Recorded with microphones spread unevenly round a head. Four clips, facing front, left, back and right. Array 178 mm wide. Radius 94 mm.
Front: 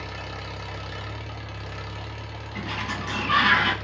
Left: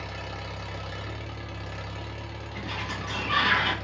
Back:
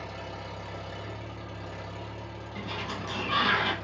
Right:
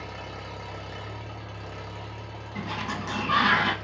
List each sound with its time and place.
0.0 s an engine running: 120° left, 0.8 m
2.5 s a sliding door: 80° right, 1.2 m